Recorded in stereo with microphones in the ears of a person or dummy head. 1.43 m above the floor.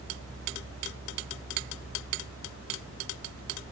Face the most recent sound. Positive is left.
No sound to turn to.